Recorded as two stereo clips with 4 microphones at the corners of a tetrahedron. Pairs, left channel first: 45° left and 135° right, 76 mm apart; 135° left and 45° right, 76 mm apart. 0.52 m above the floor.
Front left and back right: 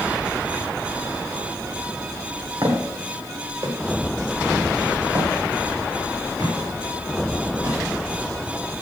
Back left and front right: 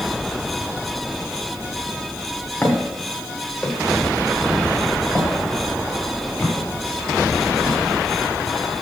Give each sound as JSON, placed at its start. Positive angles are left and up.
{"t": 2.6, "sound": "footsteps", "azimuth_deg": -170, "distance_m": 3.0}